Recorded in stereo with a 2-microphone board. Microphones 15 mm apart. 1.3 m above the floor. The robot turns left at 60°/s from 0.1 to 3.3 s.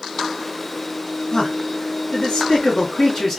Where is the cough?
No cough in this recording.